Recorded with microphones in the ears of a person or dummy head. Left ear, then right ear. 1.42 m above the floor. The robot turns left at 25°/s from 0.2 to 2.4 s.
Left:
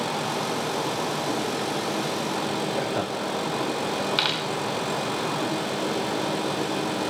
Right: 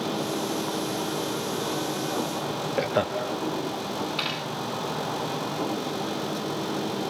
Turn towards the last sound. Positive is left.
turn(degrees=40)  # may be behind; listen again after turning